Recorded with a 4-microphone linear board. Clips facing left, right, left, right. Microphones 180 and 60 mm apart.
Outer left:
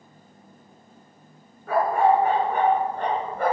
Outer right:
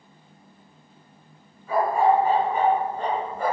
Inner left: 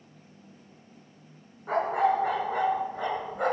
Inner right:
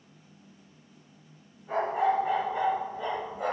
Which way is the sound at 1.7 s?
85° left.